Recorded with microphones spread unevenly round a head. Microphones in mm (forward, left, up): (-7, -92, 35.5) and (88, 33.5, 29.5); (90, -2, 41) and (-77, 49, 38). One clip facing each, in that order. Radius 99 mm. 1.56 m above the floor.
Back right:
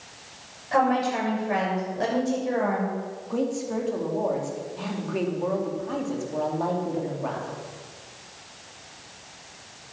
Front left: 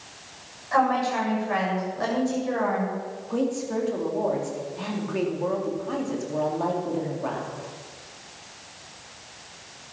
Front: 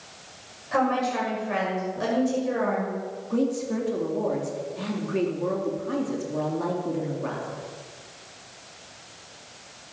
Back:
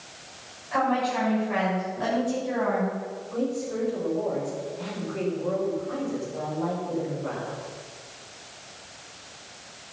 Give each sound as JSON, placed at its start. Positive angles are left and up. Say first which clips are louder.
{"t": 0.7, "sound": "a woman speaking", "louder": "even, front 1 dB", "azimuth_deg": -60, "distance_m": 7.0}
{"t": 3.3, "sound": "a woman speaking", "louder": "front left 1 dB, front 3 dB", "azimuth_deg": -40, "distance_m": 3.5}